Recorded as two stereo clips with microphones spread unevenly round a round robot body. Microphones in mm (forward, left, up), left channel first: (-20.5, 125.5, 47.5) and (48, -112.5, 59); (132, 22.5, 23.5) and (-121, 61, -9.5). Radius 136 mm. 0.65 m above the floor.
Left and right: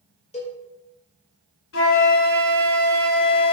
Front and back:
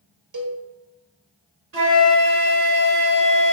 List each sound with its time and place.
0.3 s a cowbell: 170° left, 1.9 m
1.7 s a flute: 140° left, 3 m